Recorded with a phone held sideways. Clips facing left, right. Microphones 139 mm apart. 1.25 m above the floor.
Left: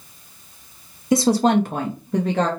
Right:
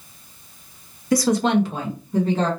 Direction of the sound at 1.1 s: 20° left (ahead or behind).